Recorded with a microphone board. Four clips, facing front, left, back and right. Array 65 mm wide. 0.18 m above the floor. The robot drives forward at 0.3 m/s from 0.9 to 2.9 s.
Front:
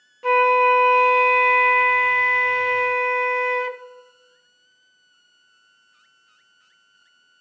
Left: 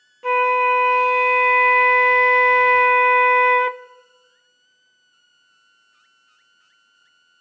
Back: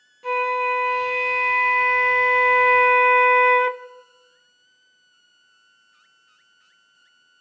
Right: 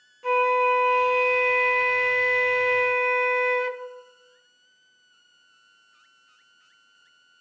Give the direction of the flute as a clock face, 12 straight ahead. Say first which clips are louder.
Left 4 dB, front 6 dB; 11 o'clock.